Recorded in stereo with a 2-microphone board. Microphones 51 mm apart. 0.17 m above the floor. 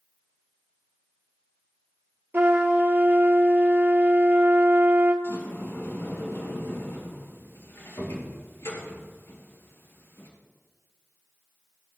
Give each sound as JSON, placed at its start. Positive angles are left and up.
{"t": 2.3, "sound": "a trumpet", "side_deg": -45, "distance_m": 1.5}
{"t": 5.2, "sound": "a sliding door", "side_deg": 65, "distance_m": 3.0}